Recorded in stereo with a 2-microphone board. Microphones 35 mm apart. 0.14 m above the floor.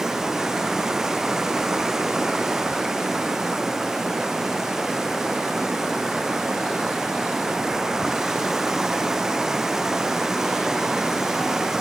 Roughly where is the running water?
Centre.